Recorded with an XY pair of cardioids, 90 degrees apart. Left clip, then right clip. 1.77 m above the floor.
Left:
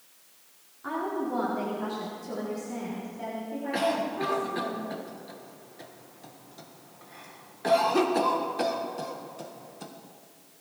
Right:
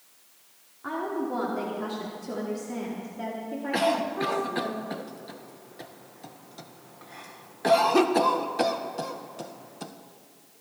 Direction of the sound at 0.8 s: 15° right.